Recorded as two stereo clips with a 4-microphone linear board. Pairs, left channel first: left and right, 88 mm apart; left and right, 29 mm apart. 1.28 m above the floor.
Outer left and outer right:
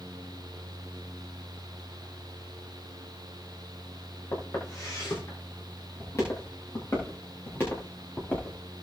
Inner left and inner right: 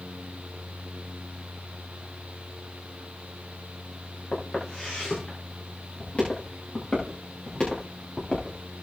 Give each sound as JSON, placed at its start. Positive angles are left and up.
{"t": 4.3, "sound": "footsteps", "side_deg": 40, "distance_m": 9.5}